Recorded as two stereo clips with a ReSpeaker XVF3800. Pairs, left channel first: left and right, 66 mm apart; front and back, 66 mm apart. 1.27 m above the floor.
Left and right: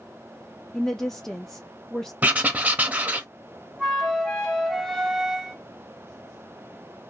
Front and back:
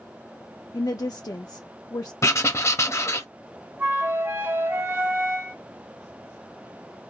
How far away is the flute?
About 0.9 m.